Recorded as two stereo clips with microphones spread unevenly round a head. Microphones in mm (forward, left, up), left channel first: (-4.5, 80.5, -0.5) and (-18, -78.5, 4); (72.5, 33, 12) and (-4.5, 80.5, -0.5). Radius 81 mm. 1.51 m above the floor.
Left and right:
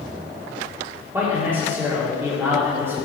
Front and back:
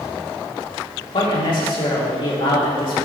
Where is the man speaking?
20° right, 3.5 m.